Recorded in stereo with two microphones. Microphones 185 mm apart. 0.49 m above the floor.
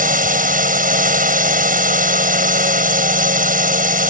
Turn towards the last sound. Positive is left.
turn(degrees=-50)  # may be behind; listen again after turning